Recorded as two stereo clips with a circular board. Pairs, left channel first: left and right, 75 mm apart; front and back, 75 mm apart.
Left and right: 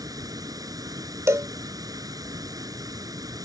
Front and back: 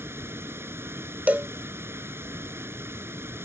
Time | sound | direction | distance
0.0 | running water | 125° right | ?
1.3 | a cowbell | 120° right | ?